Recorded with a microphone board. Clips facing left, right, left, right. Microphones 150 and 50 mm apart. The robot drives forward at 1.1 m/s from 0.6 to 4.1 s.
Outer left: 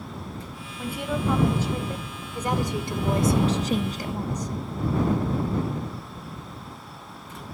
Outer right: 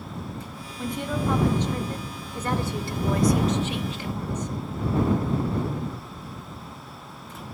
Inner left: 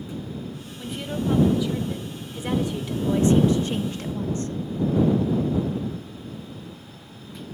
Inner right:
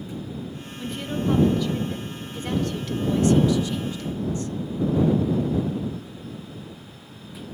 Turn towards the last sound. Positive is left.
turn(degrees=35)  # may be behind; listen again after turning